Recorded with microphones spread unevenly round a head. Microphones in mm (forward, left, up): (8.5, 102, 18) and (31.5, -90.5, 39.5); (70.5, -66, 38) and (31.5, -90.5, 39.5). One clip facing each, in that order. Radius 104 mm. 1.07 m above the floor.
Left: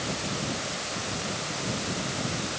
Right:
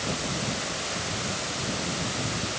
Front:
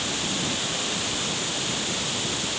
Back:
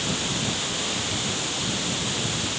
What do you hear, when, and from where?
Only background noise.